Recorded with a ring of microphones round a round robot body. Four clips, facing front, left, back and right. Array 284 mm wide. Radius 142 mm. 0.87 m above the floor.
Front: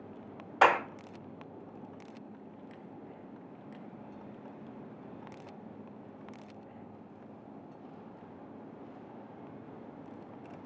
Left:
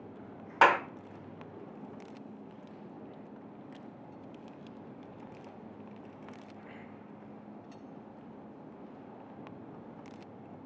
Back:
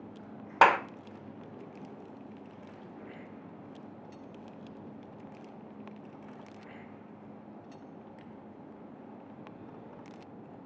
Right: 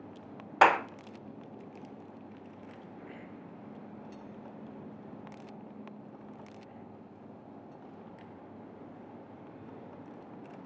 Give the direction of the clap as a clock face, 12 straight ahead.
5 o'clock.